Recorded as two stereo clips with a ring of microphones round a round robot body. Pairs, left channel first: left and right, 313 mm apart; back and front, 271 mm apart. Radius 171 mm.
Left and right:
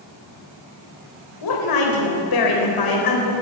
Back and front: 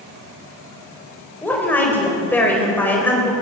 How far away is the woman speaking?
About 4 m.